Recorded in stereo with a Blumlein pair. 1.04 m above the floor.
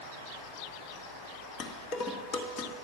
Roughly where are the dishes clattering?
Ahead left.